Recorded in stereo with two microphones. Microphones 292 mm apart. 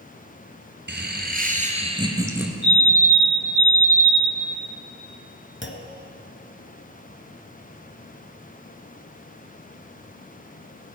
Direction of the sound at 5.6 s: 40° left (ahead or behind).